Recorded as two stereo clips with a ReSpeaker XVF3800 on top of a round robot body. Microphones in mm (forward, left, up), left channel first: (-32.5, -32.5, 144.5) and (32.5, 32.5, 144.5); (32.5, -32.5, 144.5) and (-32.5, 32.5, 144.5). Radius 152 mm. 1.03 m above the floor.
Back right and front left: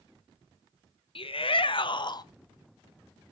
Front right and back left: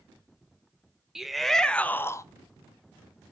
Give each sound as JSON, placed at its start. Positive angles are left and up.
{"t": 1.1, "sound": "a shout", "azimuth_deg": -140, "distance_m": 1.4}